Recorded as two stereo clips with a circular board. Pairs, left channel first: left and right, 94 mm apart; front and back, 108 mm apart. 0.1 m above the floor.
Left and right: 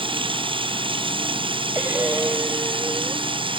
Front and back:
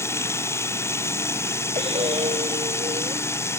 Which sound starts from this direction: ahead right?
Running water, at 0.0 s.